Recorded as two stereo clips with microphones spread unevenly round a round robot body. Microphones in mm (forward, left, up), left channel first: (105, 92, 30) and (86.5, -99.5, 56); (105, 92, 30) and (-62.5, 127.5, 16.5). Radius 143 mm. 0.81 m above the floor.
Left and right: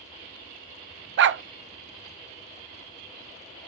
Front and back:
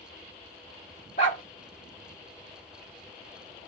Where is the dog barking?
80° right, 0.6 m.